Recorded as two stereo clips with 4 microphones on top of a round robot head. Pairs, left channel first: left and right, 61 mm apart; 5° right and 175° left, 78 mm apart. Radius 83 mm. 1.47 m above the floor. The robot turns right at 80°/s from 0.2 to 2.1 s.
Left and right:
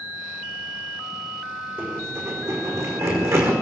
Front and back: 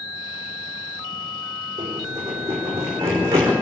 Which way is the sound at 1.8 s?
150° right.